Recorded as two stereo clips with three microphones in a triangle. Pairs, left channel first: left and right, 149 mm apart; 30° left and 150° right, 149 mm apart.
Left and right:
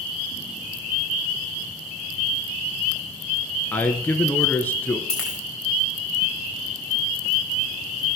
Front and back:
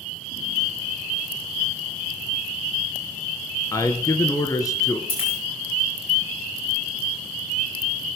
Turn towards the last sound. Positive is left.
turn(degrees=5)